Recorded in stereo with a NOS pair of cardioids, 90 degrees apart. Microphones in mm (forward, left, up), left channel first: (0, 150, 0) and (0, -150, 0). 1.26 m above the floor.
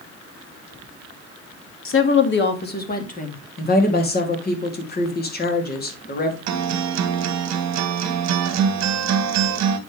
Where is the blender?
No blender in this recording.